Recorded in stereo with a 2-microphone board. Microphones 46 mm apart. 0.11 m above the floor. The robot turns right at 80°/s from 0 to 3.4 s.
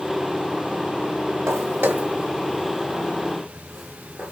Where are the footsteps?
90° right, 1.9 m; by 4.3 s 15° right (ahead or behind), 1.8 m.